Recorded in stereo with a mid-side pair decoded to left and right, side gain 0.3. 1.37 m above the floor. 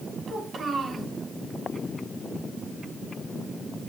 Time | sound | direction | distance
0.3 | a child speaking | 65° right | 5.5 m